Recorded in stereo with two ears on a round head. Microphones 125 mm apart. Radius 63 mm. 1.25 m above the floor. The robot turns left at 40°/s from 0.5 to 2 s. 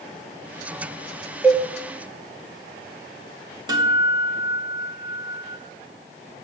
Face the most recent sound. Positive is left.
turn(degrees=-30)  # may be behind; listen again after turning